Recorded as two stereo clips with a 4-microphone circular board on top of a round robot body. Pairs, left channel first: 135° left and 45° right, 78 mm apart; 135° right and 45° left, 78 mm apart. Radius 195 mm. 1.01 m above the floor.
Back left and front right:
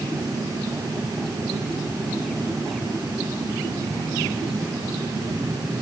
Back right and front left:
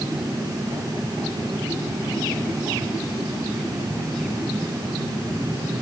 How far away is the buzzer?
I don't hear a buzzer.